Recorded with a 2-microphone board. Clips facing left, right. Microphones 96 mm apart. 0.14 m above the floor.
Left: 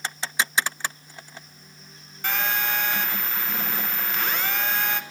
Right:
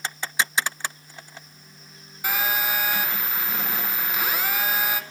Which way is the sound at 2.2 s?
10° right (ahead or behind).